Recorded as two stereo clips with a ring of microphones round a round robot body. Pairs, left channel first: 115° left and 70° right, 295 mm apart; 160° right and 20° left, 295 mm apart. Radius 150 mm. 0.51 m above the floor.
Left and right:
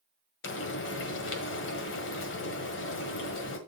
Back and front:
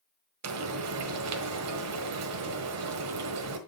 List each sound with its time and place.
0.4 s frying: 60° left, 1.5 m